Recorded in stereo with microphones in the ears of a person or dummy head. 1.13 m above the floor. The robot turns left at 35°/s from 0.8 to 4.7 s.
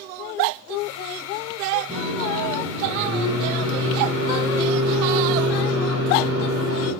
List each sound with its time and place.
1.9 s a microwave: 15° left, 6.5 m; by 6.9 s 85° right, 6.5 m